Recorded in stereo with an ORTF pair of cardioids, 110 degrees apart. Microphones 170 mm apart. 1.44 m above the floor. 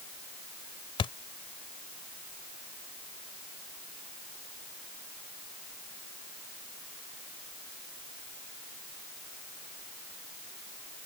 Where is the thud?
35° left.